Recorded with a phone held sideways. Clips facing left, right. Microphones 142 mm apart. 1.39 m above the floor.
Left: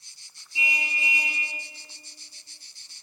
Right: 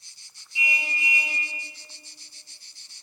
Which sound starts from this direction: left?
A car horn, at 0.6 s.